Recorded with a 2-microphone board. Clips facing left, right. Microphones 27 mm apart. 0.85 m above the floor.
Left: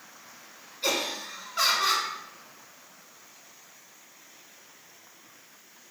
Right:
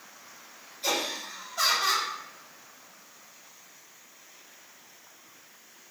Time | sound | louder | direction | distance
0.8 | laughter | left 1 dB | 40° left (ahead or behind) | 1.7 m